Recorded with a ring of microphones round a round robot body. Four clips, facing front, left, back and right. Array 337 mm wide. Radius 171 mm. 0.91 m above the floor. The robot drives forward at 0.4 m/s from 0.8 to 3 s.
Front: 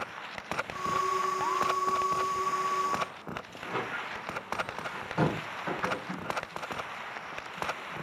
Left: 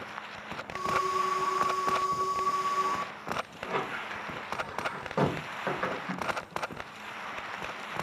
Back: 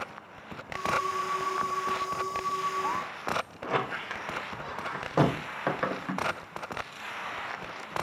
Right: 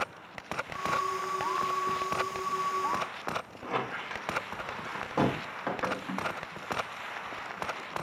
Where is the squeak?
Straight behind, 1.0 m.